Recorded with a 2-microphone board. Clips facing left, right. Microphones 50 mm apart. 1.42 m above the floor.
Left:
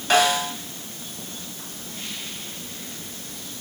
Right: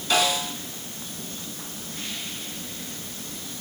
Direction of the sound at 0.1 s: 60° left (ahead or behind).